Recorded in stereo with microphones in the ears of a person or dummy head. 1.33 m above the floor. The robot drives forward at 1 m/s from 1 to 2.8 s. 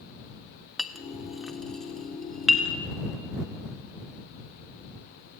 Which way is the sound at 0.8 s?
5° right (ahead or behind).